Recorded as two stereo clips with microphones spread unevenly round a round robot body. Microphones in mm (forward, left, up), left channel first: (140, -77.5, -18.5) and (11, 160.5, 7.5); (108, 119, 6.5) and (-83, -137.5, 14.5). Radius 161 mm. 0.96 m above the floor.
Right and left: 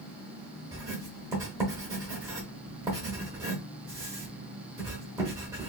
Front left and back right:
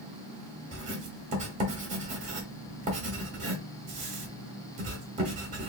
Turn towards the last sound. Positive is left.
turn(degrees=180)